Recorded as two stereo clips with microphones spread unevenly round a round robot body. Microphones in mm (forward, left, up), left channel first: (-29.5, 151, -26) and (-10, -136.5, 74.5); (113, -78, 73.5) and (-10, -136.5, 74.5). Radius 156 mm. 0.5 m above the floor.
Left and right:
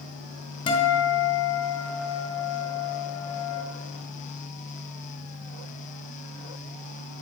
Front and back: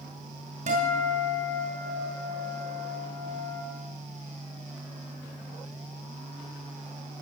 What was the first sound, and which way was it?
A guitar, 165° left.